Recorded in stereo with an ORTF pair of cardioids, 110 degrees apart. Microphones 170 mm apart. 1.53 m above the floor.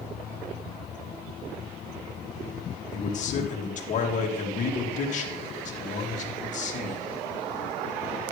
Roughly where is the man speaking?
Ahead left.